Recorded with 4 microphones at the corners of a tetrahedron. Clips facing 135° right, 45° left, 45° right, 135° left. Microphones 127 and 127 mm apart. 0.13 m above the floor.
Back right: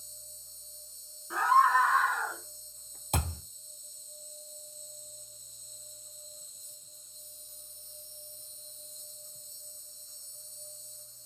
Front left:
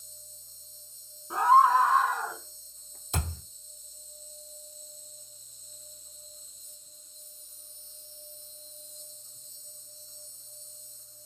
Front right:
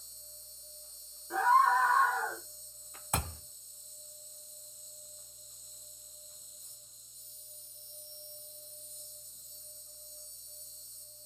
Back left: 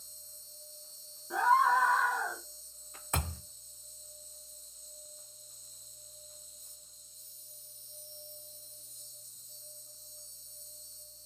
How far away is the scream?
About 1.1 m.